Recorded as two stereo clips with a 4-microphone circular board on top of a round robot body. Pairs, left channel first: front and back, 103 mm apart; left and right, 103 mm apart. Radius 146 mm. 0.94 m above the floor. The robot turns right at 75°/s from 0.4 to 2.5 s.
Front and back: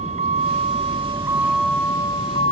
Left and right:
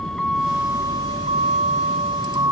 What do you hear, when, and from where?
0.0 s a vehicle: 175° left; by 2.5 s 25° right